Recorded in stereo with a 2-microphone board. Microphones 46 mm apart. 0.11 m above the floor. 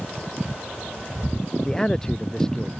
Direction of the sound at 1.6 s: 15° left (ahead or behind).